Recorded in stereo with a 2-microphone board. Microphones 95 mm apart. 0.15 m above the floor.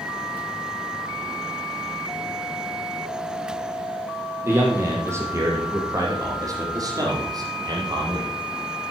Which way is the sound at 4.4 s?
25° right (ahead or behind).